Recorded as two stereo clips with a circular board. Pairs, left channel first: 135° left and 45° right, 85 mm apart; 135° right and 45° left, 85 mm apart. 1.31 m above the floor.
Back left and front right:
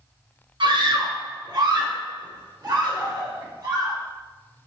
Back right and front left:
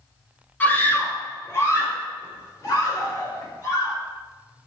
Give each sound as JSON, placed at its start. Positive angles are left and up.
{"t": 0.6, "sound": "a scream", "azimuth_deg": -65, "distance_m": 1.8}